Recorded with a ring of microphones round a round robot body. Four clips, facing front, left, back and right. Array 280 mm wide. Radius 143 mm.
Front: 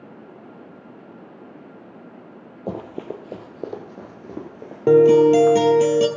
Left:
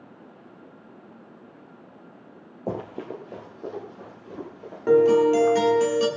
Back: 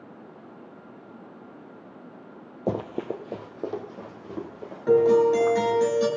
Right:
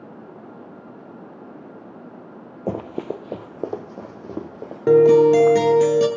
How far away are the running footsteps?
About 1.0 m.